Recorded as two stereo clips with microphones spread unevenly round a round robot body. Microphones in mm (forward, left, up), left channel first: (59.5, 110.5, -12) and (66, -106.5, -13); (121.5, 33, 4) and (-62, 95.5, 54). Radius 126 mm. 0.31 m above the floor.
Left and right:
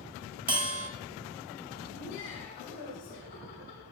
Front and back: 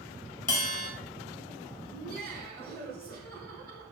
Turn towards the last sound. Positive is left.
turn(degrees=145)